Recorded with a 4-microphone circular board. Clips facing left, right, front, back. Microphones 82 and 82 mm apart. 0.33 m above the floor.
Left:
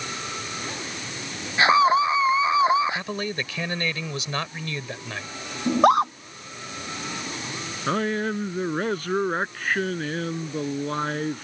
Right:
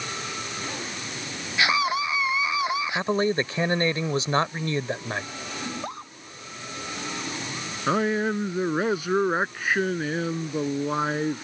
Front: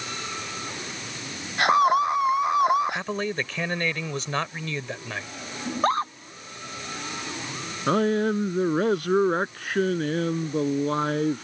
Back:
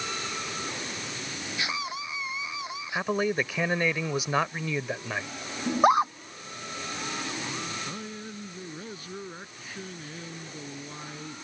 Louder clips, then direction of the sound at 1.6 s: Left 7 dB, front 16 dB; 30° left.